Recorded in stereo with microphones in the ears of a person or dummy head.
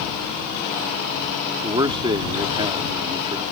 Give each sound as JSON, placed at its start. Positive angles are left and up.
{"t": 1.6, "sound": "a man speaking", "side_deg": -20}